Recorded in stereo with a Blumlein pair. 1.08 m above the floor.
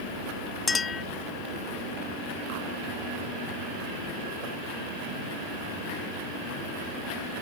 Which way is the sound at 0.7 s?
15° left.